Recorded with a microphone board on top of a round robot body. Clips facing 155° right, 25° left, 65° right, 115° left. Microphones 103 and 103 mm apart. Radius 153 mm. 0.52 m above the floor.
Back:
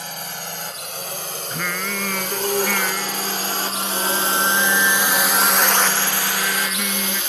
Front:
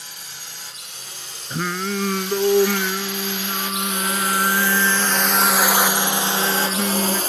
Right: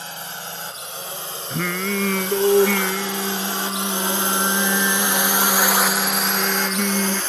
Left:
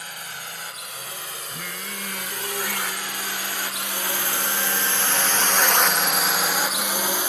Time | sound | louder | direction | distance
0.0 | a drone | back 10 dB, right 4 dB | 125° right | ?
1.5 | singing | front 4 dB, right 16 dB | 40° right | ?